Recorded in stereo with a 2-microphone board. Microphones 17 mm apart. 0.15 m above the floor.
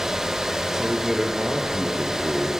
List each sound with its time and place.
0.7 s a man speaking: 30° right (ahead or behind), 4 m